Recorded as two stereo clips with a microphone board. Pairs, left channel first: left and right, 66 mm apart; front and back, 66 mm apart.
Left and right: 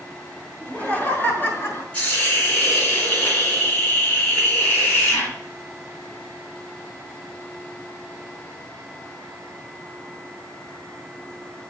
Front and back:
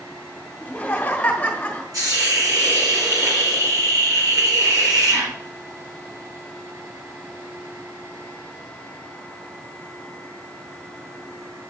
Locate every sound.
0.6 s laughter: 45° left, 1.4 m; by 1.8 s 60° left, 1.7 m
1.9 s a hiss: 160° left, 2.5 m